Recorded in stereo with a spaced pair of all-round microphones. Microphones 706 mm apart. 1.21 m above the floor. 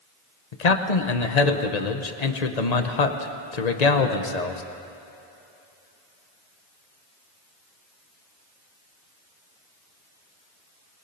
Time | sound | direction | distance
0.5 | a man speaking | 65° left (ahead or behind) | 1.1 m